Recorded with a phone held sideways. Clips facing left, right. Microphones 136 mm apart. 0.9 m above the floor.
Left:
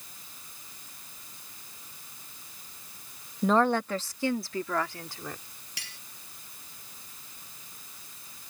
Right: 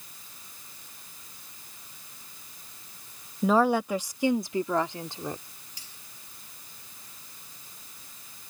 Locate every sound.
3.4 s a woman speaking: 5° right (ahead or behind); by 5.4 s 25° right (ahead or behind)
5.8 s cutlery clinking: 75° left (ahead or behind)